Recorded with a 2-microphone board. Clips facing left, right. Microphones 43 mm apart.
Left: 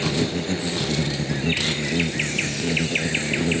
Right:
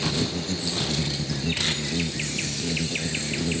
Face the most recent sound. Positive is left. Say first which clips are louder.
# left 4 dB
turn(degrees=35)  # may be behind; listen again after turning